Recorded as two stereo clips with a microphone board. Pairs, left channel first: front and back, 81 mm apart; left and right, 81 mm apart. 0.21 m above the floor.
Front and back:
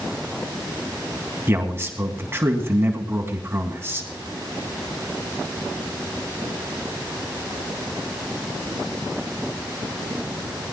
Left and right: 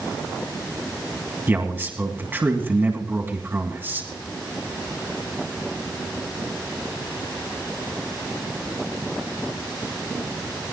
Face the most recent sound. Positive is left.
turn(degrees=-140)